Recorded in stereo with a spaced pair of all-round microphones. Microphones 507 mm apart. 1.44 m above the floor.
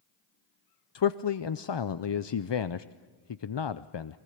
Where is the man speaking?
55° left (ahead or behind), 0.5 m.